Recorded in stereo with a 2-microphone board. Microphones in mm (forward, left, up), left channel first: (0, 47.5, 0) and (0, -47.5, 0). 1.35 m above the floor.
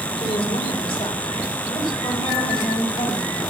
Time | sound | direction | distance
0.2 | a woman speaking | 85° left | 3.5 m